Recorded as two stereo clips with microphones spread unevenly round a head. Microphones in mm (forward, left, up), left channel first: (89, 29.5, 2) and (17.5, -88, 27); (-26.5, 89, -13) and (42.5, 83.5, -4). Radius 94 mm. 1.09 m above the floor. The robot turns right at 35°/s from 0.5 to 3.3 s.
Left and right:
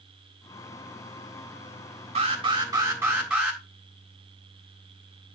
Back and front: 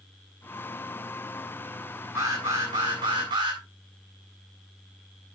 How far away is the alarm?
About 4 m.